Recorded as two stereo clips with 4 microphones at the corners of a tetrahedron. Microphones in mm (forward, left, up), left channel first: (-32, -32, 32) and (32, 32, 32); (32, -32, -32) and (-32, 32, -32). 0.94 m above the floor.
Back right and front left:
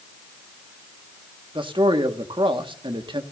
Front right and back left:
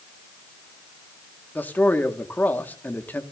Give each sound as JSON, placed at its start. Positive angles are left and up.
{"t": 1.6, "sound": "a man speaking", "azimuth_deg": 25, "distance_m": 1.7}